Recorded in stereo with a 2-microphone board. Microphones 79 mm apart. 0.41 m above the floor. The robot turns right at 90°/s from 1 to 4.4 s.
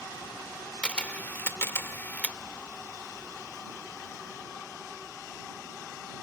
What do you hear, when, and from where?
0.8 s a camera shutter: 15° left (ahead or behind)